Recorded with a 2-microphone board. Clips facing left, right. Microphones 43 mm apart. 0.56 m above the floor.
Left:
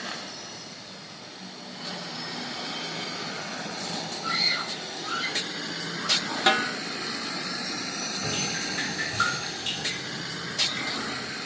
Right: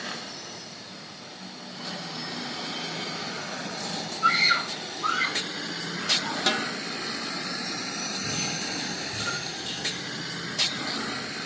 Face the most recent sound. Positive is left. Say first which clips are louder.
# left 3 dB
turn(degrees=75)  # may be behind; listen again after turning